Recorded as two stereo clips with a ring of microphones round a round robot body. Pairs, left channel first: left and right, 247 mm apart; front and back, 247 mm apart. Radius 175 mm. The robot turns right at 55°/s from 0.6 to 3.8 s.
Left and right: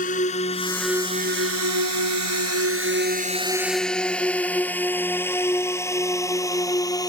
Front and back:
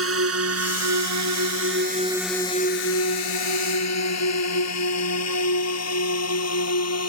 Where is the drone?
155° left; by 7.1 s 15° left.